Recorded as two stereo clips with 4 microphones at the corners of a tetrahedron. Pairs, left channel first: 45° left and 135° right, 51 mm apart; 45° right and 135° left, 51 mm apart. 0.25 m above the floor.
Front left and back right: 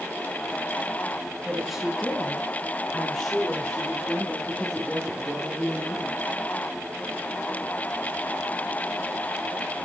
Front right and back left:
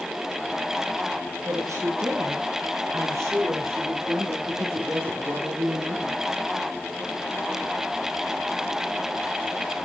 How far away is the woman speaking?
About 4 m.